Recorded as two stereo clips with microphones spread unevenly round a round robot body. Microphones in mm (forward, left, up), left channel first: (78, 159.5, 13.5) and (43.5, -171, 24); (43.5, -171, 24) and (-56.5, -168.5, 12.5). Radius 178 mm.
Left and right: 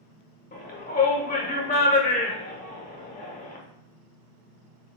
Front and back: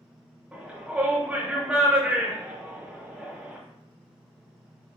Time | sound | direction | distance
0.5 | a shout | 110° left | 0.8 m